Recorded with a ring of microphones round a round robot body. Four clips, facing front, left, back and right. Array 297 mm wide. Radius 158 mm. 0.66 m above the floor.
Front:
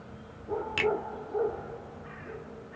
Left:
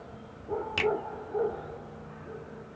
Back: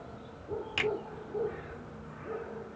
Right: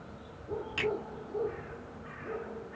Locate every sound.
0.8 s a finger snap: 70° left, 1.3 m